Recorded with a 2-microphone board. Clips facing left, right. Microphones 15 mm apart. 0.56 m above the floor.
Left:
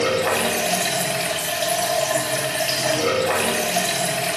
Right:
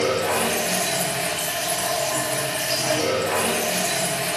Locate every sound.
0.0 s running water: 50° left (ahead or behind), 1.2 m